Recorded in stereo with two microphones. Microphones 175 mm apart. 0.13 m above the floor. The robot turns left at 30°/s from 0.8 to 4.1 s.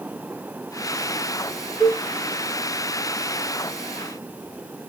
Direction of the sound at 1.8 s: 5° right (ahead or behind).